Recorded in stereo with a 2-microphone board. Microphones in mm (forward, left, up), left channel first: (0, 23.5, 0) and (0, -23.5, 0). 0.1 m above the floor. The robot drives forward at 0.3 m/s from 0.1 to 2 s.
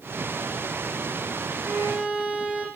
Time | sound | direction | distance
1.6 | a violin | 30° right (ahead or behind) | 6 m